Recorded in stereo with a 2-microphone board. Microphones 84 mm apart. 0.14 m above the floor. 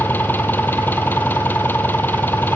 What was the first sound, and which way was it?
An engine running, 25° left (ahead or behind).